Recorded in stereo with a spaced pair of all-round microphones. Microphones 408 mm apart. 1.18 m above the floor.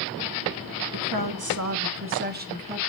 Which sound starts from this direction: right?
A woman speaking, at 0.9 s.